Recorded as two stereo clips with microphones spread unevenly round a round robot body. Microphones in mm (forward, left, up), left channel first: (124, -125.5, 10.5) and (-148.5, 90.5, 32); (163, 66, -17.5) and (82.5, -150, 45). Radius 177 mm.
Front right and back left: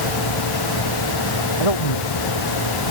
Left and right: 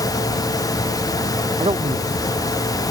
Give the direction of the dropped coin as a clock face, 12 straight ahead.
I don't hear a dropped coin.